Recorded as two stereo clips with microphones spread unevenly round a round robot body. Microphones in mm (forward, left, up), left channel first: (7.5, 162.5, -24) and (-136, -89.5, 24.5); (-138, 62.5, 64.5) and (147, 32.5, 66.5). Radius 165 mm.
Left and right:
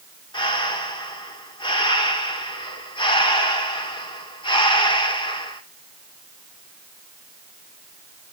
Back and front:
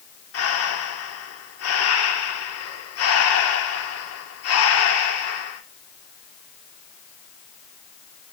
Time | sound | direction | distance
0.3 | breathing | 135° left | 2 m